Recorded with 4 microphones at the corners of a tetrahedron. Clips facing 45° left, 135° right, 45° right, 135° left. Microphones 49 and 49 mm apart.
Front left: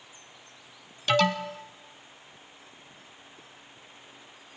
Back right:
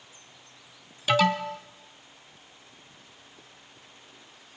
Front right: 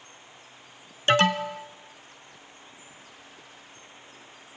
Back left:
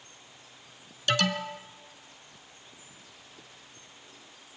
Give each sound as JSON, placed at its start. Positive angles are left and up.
{"t": 1.1, "sound": "an alarm", "azimuth_deg": -55, "distance_m": 0.9}